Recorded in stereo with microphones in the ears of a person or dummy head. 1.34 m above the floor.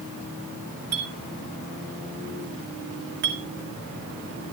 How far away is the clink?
About 2 m.